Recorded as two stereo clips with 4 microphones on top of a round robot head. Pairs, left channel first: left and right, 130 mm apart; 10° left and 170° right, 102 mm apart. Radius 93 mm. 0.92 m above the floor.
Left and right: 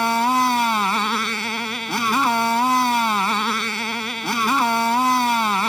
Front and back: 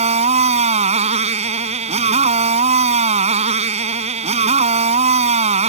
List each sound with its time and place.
0.0 s a motorcycle: straight behind